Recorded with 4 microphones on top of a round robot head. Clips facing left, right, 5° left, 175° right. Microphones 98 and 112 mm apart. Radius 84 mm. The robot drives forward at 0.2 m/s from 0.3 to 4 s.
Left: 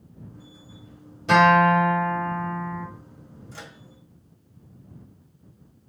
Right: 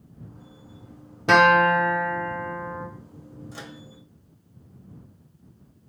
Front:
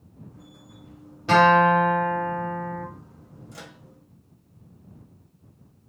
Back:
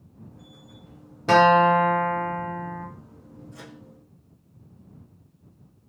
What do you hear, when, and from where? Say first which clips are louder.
1.3 s a guitar: left 1 dB, even; 130° right, 0.8 m; by 2.9 s 145° right, 1.0 m
3.5 s a microwave: right 1 dB, front 1 dB; 15° right, 0.8 m